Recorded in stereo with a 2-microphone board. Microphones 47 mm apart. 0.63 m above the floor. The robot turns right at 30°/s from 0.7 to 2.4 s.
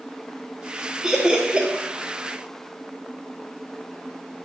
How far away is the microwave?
No microwave in this recording.